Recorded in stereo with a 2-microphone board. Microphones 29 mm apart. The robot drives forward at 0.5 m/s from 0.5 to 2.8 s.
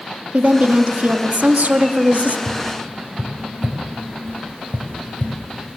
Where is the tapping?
75° right (ahead or behind), 4 m.